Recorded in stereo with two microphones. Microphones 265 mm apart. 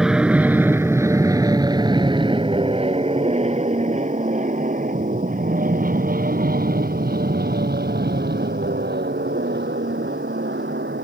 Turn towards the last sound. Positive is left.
turn(degrees=-40)  # may be behind; listen again after turning